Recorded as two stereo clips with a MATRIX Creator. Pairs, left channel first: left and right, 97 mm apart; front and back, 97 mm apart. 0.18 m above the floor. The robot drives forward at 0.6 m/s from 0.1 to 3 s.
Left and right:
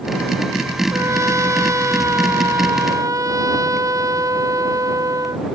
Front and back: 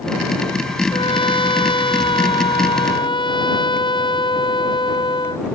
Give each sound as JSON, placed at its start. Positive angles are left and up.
{"t": 0.9, "sound": "a trumpet", "azimuth_deg": -30}